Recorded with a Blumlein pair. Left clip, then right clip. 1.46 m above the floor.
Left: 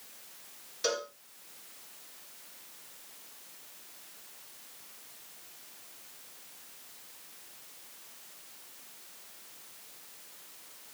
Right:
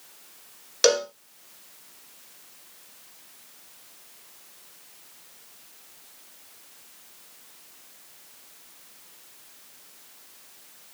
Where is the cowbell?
40° right, 1.1 m.